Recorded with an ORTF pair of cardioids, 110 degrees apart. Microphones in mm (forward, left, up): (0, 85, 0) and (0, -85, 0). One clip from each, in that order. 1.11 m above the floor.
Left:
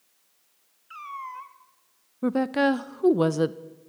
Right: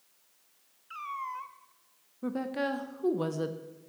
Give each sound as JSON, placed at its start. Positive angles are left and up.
{"t": 0.9, "sound": "a cat meowing", "azimuth_deg": 0, "distance_m": 0.8}
{"t": 2.2, "sound": "a woman speaking", "azimuth_deg": 40, "distance_m": 0.5}